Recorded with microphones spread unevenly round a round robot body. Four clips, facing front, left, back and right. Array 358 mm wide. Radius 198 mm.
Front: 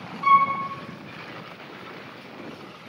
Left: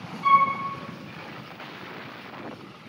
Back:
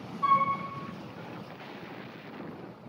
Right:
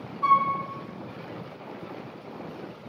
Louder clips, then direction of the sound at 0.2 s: Left 2 dB, front 7 dB; 75° right.